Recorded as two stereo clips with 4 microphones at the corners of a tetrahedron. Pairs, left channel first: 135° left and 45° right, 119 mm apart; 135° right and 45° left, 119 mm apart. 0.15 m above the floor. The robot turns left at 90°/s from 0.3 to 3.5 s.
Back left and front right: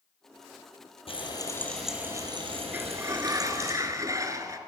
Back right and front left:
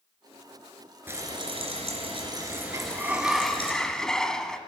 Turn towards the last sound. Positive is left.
turn(degrees=-55)